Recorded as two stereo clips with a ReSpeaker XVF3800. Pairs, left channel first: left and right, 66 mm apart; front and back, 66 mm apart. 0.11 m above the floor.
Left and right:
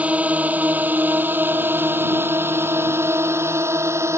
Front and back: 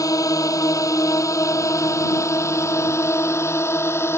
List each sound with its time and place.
0.0 s a drone: 20° right; by 4.2 s 50° right